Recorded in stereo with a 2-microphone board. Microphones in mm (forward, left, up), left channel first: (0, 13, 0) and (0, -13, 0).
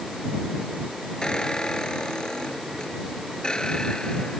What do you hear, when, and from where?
1.2 s a squeak: 30° left (ahead or behind)